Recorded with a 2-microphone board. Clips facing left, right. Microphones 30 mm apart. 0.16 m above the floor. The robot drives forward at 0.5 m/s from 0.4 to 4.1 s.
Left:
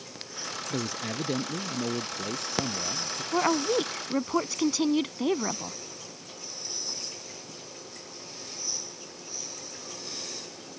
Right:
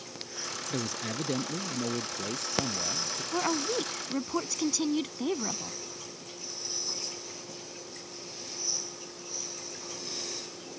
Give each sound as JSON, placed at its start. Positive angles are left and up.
{"t": 0.7, "sound": "a man speaking", "side_deg": 5}
{"t": 3.3, "sound": "a woman speaking", "side_deg": 20}